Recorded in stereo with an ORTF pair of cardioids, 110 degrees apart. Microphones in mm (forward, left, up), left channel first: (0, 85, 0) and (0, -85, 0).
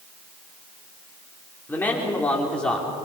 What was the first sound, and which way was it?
A man speaking, 10° left.